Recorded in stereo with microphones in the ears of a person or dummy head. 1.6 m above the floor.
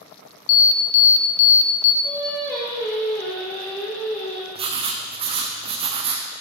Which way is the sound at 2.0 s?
20° left (ahead or behind).